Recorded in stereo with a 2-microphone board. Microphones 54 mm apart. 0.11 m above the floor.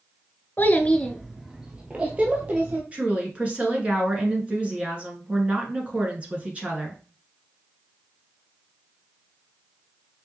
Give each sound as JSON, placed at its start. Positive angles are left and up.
{"t": 0.6, "sound": "a child speaking", "side_deg": 35, "distance_m": 0.8}
{"t": 2.9, "sound": "a woman speaking", "side_deg": -25, "distance_m": 1.4}